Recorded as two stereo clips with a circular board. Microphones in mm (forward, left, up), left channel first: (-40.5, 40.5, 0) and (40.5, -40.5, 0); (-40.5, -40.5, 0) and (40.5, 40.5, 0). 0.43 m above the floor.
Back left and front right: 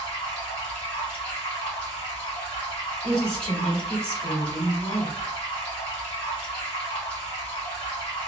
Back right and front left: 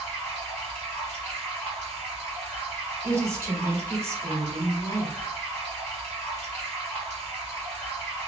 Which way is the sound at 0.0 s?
145° left.